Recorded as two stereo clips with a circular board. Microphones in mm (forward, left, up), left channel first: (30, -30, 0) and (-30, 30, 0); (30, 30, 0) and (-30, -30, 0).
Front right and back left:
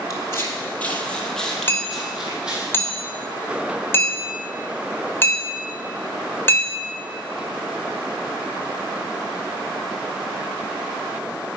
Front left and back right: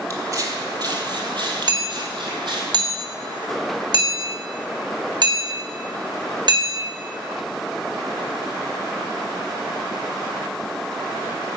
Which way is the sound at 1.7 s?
105° right.